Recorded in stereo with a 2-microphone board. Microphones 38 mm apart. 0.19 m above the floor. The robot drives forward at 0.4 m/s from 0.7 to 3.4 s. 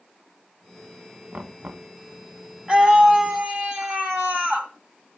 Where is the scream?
30° right (ahead or behind), 1.3 m.